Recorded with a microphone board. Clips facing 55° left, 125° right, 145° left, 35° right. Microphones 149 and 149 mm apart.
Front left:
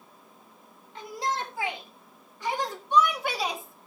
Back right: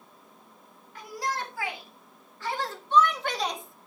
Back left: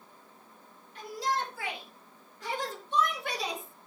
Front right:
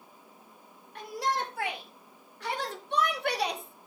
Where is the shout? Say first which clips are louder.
Front left 2 dB, front right 1 dB; 10° right, 4 m; by 3.9 s 35° right, 1.5 m.